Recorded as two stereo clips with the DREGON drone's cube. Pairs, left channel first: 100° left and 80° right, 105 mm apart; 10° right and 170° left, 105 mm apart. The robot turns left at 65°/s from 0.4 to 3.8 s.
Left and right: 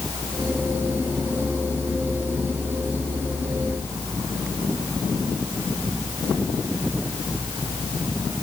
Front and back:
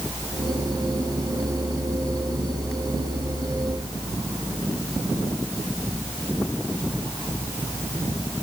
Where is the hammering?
I don't hear hammering.